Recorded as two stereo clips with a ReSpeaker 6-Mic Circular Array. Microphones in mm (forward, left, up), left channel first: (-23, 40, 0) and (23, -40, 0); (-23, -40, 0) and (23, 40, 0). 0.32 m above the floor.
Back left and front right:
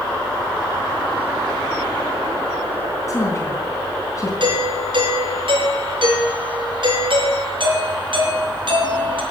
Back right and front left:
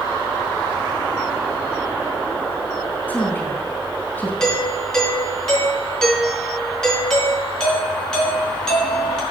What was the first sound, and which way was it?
A woman speaking, 170° left.